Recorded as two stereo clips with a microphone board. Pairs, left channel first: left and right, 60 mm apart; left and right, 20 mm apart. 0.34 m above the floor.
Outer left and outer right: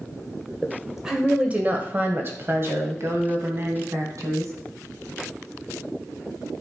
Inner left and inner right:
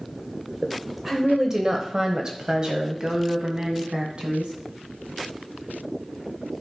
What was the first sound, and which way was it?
A woman speaking, 5° left (ahead or behind).